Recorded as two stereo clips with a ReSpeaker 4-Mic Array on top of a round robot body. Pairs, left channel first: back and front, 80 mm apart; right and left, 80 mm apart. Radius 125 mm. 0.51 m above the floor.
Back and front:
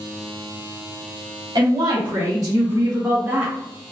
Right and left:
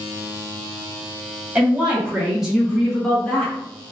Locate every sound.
1.6 s a woman speaking: 15° left, 1.8 m; by 3.5 s 55° right, 1.1 m